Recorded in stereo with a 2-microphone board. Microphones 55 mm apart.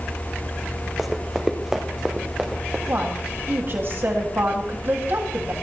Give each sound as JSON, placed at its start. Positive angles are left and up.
{"t": 1.0, "sound": "running footsteps", "side_deg": -5, "distance_m": 1.5}
{"t": 2.9, "sound": "a woman speaking", "side_deg": -45, "distance_m": 2.0}